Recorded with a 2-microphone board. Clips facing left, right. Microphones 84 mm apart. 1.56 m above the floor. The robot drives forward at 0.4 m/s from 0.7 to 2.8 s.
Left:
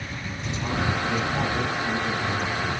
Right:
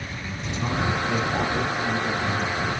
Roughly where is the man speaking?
Right.